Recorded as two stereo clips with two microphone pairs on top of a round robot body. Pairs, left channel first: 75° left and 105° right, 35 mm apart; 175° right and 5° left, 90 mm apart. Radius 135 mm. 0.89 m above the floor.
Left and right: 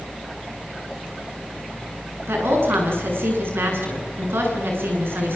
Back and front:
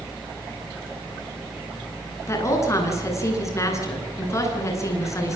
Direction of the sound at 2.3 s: 115° right.